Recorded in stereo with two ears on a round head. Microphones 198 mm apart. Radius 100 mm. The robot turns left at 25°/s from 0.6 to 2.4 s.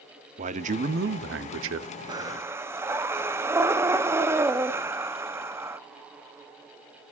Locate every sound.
0.4 s a man speaking: 30° right, 0.7 m; by 1.9 s 65° right, 0.7 m
2.1 s breathing: 20° right (ahead or behind), 0.7 m; by 5.8 s 10° right (ahead or behind), 0.7 m